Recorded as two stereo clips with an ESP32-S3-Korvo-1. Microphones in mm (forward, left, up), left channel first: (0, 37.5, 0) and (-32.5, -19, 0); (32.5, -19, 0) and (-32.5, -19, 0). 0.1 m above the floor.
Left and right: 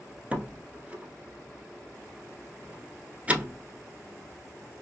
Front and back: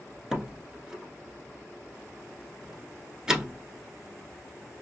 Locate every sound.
0.3 s a door slam: 120° right, 0.8 m